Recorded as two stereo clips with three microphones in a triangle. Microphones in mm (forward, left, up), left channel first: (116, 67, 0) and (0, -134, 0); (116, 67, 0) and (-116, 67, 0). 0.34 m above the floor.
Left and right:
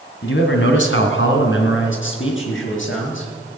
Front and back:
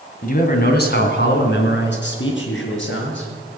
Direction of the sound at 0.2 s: 45° left.